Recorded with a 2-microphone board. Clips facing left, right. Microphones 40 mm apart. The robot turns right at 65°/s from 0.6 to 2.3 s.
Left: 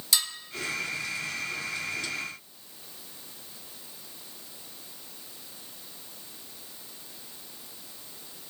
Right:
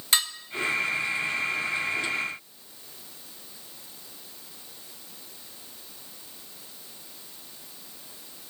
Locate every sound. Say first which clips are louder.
0.1 s dishes clattering: right 3 dB; 40° right (ahead or behind), 0.9 m